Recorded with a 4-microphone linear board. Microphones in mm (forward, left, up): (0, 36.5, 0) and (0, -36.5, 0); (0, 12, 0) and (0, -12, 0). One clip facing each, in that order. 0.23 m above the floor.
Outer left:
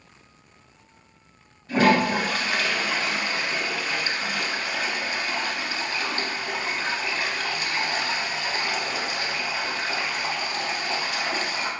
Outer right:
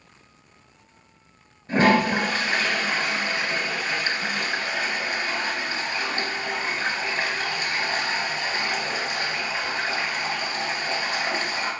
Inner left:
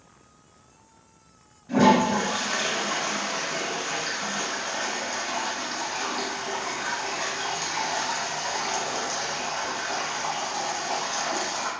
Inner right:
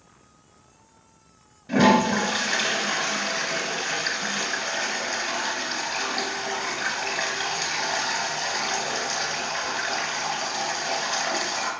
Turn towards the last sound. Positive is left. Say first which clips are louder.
# outer right 1 dB, inner right 1 dB
turn(degrees=-30)  # may be behind; listen again after turning